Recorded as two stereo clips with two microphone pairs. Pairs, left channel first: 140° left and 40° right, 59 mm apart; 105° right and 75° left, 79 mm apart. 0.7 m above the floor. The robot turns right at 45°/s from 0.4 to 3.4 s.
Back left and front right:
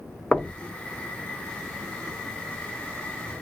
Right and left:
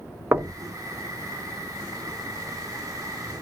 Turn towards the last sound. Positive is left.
turn(degrees=-150)